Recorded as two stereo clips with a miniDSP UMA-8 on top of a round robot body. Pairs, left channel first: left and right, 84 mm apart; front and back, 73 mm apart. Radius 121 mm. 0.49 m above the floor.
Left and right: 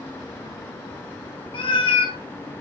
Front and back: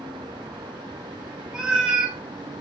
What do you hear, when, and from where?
1.5 s a cat meowing: 100° left, 0.7 m